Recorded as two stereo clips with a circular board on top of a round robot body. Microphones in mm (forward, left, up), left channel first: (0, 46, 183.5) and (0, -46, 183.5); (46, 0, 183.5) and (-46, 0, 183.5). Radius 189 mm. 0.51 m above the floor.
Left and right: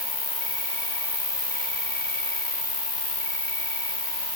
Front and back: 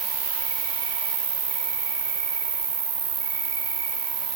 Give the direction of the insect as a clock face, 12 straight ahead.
7 o'clock.